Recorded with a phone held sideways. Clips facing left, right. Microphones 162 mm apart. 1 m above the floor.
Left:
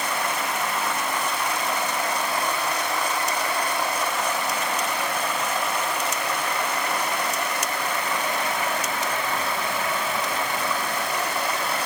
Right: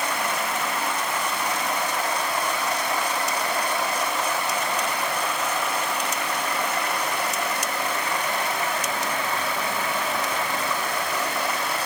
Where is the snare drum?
No snare drum in this recording.